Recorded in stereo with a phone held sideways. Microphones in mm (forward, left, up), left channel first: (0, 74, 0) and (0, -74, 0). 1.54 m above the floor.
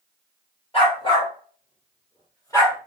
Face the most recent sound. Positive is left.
turn(degrees=20)  # may be behind; listen again after turning